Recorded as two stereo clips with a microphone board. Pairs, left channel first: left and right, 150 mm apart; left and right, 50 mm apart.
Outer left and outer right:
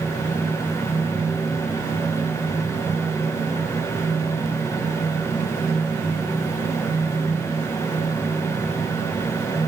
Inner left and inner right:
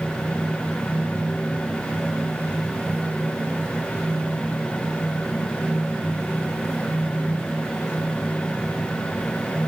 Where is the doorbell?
No doorbell in this recording.